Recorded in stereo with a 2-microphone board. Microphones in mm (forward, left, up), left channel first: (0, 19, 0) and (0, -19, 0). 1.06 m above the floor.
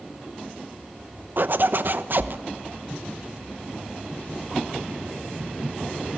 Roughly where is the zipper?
Right.